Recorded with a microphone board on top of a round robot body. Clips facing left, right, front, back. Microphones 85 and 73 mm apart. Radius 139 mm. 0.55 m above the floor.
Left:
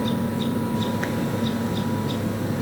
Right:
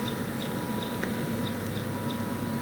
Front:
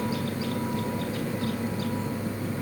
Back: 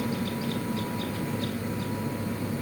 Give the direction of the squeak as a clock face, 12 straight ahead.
No squeak in this recording.